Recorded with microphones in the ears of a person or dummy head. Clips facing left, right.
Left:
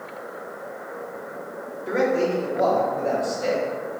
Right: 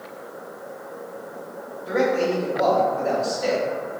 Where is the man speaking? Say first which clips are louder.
Even; 35° left (ahead or behind), 1.2 m.